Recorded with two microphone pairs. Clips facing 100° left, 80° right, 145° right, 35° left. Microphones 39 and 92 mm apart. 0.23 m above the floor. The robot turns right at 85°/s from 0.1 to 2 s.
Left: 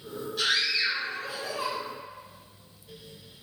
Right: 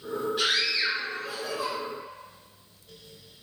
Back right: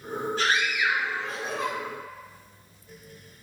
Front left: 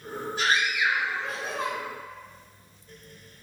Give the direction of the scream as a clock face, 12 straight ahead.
1 o'clock.